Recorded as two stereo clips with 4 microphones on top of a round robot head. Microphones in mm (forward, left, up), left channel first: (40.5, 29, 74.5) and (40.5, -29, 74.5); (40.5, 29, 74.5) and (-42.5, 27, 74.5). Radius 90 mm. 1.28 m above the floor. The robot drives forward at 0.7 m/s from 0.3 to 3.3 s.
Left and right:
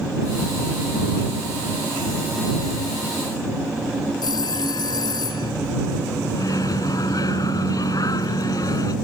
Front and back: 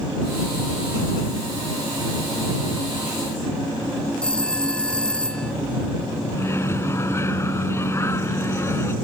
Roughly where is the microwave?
Ahead left.